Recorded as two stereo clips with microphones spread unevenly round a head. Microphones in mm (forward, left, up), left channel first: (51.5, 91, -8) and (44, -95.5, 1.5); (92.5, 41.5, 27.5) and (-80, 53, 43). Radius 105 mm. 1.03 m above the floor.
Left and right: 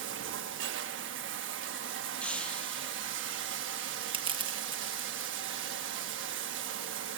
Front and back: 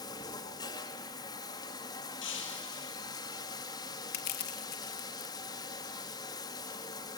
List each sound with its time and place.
0.0 s running water: 75° right, 1.4 m
2.2 s breaking glass: straight ahead, 5 m
4.1 s crushing: 30° right, 1.6 m